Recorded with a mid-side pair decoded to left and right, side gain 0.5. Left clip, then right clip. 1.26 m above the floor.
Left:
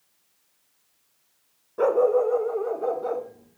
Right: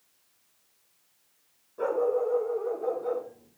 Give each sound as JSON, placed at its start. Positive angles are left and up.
{"t": 1.8, "sound": "a dog barking", "azimuth_deg": 55, "distance_m": 2.5}